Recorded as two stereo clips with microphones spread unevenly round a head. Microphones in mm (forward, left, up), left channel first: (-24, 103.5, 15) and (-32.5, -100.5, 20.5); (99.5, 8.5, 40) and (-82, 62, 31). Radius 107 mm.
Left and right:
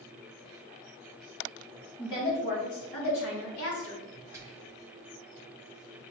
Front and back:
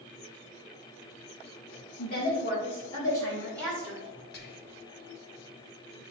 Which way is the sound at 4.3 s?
20° right.